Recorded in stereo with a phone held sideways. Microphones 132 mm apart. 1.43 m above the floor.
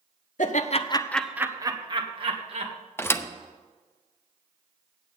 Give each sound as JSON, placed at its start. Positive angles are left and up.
{"t": 0.4, "sound": "laughter", "side_deg": 70, "distance_m": 1.0}
{"t": 3.0, "sound": "a thud", "side_deg": 20, "distance_m": 0.7}